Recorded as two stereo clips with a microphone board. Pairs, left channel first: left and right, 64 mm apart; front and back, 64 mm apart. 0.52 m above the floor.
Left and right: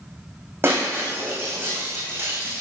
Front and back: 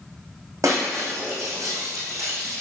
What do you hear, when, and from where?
0.6 s breaking glass: 140° right, 7 m